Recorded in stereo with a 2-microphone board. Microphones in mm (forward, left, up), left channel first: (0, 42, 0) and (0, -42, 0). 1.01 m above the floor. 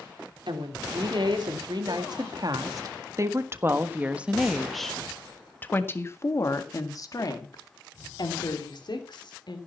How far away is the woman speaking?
About 2.5 m.